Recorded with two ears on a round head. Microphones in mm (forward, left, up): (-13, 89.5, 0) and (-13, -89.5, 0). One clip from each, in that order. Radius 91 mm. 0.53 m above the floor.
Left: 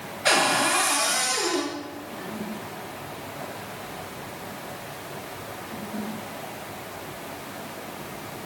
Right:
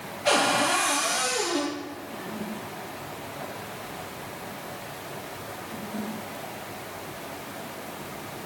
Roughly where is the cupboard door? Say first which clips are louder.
Left 1 dB; left.